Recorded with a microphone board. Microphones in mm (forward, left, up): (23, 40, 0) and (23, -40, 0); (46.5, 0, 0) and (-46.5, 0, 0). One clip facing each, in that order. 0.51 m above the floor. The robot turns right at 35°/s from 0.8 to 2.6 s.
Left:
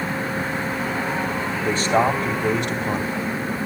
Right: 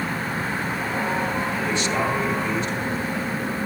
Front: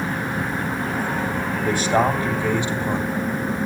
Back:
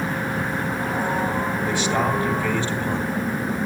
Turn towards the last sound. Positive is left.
turn(degrees=75)